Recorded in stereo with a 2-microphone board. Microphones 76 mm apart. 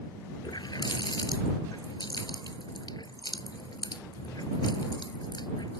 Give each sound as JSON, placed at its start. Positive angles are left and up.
{"t": 0.4, "sound": "a running tap", "side_deg": 70}